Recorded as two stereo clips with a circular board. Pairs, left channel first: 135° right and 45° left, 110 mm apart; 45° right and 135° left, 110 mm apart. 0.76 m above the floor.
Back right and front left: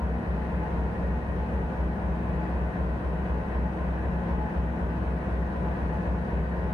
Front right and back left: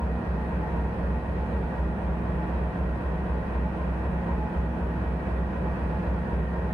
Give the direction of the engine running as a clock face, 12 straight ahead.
5 o'clock.